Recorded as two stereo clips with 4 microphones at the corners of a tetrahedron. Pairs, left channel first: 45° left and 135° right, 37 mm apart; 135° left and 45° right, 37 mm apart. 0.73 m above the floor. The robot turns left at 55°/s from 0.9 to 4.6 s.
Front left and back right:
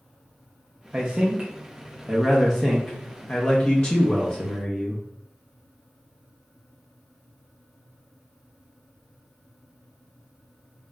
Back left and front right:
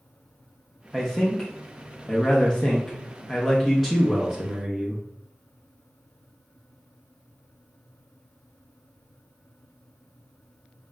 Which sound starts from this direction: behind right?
A man speaking, at 0.9 s.